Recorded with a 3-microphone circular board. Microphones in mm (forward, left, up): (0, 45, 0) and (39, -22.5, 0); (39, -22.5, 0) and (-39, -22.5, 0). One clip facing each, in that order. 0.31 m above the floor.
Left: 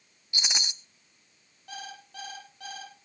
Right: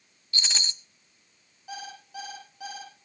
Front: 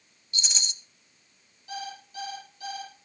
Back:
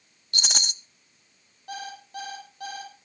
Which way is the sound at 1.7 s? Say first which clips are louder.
Right 3 dB, back 1 dB; 140° right.